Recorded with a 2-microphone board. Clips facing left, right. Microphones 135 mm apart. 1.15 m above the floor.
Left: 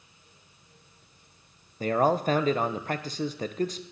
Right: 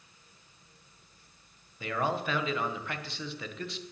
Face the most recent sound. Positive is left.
turn(degrees=40)  # may be behind; listen again after turning